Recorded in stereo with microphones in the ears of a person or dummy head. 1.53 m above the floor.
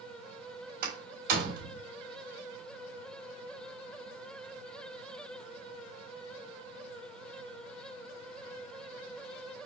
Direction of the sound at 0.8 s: 50° right (ahead or behind).